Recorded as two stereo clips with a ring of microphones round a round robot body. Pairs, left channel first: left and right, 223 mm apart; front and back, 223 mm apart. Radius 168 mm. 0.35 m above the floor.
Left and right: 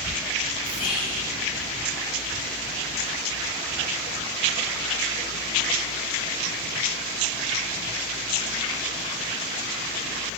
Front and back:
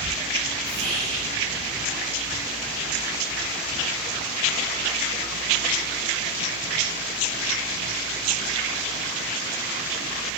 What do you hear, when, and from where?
0.6 s whispering: 85° left, 3.5 m